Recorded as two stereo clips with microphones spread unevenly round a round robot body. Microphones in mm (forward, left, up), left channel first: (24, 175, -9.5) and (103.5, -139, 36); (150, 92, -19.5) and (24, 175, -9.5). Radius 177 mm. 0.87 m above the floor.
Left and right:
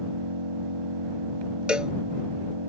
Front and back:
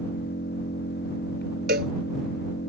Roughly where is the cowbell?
Behind.